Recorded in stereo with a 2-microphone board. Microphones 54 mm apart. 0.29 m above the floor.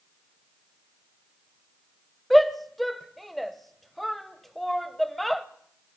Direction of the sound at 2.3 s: Centre (ahead or behind).